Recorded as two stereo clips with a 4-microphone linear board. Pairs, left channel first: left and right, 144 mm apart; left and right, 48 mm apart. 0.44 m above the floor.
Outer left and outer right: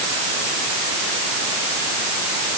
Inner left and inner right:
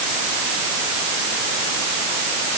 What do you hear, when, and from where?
Only background noise.